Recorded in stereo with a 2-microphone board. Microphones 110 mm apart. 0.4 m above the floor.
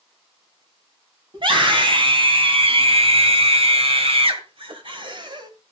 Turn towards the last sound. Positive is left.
turn(degrees=-45)  # may be behind; listen again after turning